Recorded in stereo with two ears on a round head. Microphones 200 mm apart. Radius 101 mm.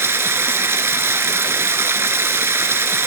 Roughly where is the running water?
Centre.